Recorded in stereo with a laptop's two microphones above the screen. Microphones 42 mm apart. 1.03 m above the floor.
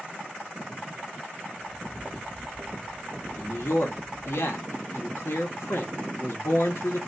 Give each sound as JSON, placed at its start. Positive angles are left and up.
{"t": 1.5, "sound": "footsteps", "side_deg": 15, "distance_m": 1.1}
{"t": 3.4, "sound": "a man speaking", "side_deg": 80, "distance_m": 1.3}